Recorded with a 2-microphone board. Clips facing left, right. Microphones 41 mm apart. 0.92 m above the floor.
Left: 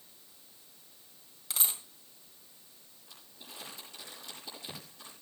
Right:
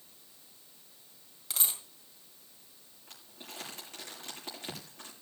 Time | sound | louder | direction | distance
1.5 | a dropped coin | even | 5° left (ahead or behind) | 1.9 m
3.1 | crumpling | right 3 dB | 55° right (ahead or behind) | 7.5 m